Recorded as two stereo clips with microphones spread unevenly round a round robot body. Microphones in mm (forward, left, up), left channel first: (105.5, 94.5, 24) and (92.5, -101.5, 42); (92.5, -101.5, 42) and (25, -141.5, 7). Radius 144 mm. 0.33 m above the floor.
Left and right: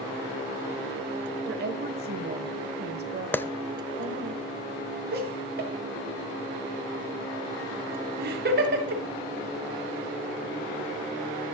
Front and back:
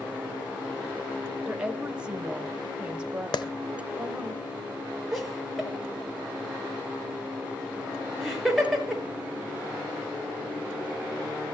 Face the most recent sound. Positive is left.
turn(degrees=-65)